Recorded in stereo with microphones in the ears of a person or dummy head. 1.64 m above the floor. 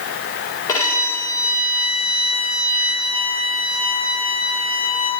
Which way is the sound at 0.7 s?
10° left (ahead or behind).